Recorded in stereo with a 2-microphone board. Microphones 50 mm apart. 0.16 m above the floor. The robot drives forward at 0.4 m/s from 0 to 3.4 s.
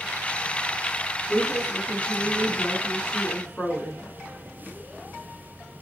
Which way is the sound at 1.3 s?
20° left (ahead or behind).